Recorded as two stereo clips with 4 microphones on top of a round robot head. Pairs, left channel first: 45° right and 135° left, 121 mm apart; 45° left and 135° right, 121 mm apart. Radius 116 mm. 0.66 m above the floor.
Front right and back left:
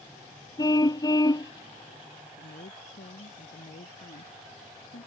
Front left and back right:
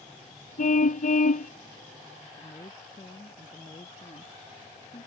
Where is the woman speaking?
20° right.